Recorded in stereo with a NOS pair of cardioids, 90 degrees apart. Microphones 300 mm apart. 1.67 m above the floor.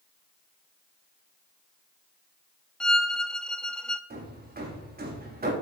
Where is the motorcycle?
I don't hear a motorcycle.